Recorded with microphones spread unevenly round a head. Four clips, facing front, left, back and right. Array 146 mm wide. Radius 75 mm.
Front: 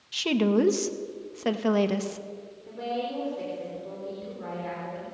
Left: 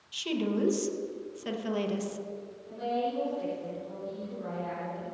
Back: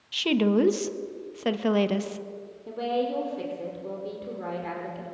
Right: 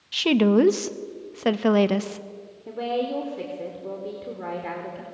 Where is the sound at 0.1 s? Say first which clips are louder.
Right 12 dB, back 1 dB; 90° right, 1.2 m.